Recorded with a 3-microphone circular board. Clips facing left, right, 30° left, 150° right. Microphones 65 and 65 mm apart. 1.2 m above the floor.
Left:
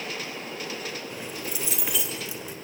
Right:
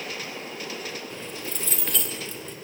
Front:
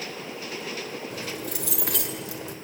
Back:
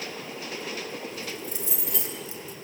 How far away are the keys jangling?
About 3 m.